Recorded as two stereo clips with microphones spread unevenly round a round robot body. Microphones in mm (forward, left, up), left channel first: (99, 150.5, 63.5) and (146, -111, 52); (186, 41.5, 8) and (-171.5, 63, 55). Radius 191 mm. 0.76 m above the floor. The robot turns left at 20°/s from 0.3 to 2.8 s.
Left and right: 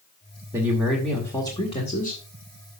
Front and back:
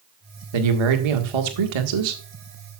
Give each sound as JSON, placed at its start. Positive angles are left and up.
{"t": 0.5, "sound": "a man speaking", "azimuth_deg": -160, "distance_m": 1.6}